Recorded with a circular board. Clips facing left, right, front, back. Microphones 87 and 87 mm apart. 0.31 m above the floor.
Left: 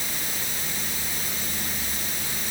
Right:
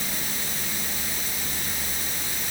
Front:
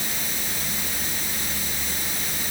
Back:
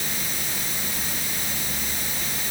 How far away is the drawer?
No drawer in this recording.